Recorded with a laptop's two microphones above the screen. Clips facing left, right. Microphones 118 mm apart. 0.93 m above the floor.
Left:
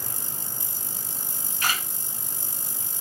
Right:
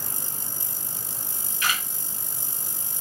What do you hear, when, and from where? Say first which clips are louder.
1.6 s a camera shutter: even; 40° left (ahead or behind), 1.7 m